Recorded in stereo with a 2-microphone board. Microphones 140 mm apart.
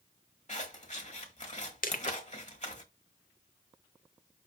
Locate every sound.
0.5 s scissors: 50° left (ahead or behind), 1.4 m
1.8 s crushing: 70° left (ahead or behind), 0.9 m